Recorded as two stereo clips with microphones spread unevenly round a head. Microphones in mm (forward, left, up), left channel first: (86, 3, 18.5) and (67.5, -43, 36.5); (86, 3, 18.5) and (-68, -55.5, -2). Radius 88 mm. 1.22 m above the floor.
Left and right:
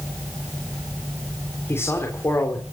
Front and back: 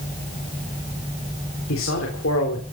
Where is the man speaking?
30° left, 3.5 m.